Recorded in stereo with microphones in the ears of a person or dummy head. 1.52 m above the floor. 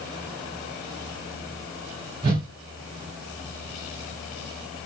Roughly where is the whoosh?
Centre.